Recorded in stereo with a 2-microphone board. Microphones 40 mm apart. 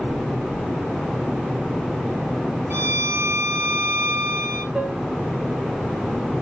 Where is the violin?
65° right (ahead or behind), 4.5 m.